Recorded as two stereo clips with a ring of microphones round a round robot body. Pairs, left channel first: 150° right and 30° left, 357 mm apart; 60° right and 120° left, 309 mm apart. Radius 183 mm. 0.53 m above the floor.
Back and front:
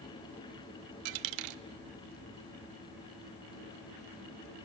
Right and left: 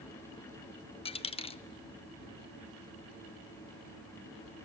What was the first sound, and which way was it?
A dropped coin, 15° left.